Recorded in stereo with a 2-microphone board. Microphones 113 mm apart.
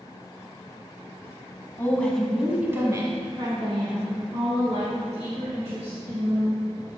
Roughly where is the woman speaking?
Left.